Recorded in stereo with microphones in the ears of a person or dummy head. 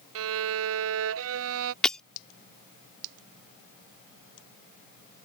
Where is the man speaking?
I don't hear a man speaking.